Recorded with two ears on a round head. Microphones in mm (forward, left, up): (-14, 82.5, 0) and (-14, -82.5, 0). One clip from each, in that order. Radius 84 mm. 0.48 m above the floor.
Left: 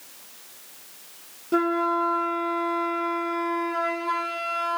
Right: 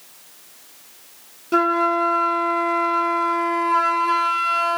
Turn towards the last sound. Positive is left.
turn(degrees=-40)  # may be behind; listen again after turning